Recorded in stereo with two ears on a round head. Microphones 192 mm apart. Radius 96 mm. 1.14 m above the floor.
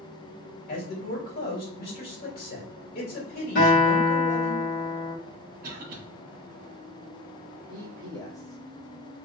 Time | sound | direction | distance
0.7 | a man speaking | 45° left (ahead or behind) | 1.9 m
3.5 | a guitar | 40° left (ahead or behind) | 1.8 m
5.6 | a cough | 40° right (ahead or behind) | 1.1 m
7.7 | a man speaking | 15° left (ahead or behind) | 1.5 m